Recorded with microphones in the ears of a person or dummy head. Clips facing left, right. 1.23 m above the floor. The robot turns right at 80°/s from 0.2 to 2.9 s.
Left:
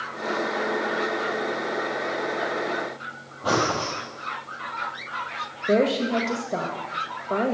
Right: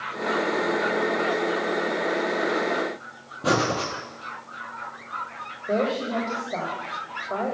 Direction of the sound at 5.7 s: 35° left (ahead or behind).